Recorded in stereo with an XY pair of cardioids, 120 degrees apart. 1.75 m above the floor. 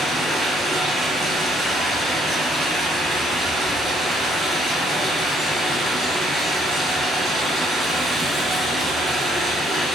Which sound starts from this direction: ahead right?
Running water, at 0.0 s.